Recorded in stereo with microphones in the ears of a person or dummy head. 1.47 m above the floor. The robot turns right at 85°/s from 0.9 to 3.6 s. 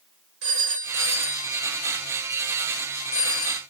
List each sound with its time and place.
0.4 s a phone ringing: 75° right (ahead or behind), 3 m; by 3.6 s 30° left (ahead or behind), 3 m